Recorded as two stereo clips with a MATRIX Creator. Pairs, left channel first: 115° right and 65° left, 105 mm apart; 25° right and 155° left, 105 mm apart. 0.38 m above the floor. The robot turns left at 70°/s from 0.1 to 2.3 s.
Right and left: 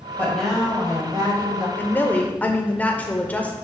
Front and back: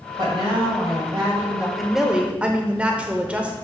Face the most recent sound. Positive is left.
turn(degrees=-150)